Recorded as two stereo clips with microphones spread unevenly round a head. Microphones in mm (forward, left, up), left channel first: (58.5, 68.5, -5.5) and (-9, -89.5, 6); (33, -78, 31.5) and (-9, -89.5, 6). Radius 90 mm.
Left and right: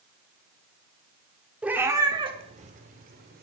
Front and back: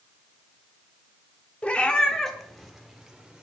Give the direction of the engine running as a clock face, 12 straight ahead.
No engine running in this recording.